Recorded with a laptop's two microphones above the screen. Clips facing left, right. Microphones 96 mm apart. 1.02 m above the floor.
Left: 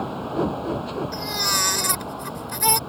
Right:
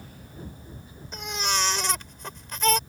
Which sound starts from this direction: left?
A vehicle, at 0.0 s.